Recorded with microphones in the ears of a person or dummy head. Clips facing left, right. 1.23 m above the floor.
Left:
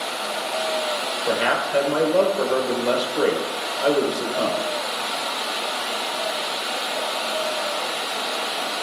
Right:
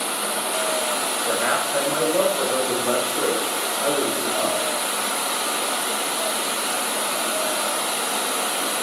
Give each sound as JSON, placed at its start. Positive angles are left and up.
{"t": 0.0, "sound": "running water", "side_deg": -50, "distance_m": 0.9}
{"t": 1.3, "sound": "a man speaking", "side_deg": 40, "distance_m": 3.5}